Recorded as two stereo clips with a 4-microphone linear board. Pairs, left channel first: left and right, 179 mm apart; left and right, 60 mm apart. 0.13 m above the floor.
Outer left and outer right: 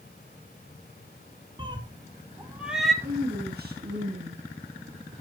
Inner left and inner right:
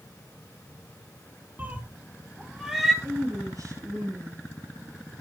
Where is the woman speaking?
65° right (ahead or behind), 2.5 m.